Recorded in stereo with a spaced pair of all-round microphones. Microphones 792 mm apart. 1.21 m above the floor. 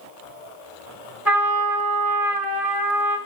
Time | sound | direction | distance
1.2 | a trumpet | centre (ahead or behind) | 0.8 m